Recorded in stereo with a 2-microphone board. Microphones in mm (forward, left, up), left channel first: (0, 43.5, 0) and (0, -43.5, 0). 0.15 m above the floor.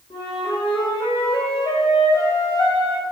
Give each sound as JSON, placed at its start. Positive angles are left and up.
{"t": 0.1, "sound": "a flute", "side_deg": 70, "distance_m": 6.0}